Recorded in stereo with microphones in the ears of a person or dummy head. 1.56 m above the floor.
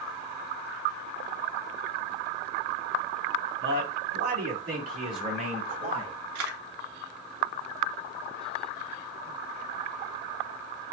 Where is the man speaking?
70° right (ahead or behind), 1.4 m; by 6.2 s 30° right (ahead or behind), 2 m.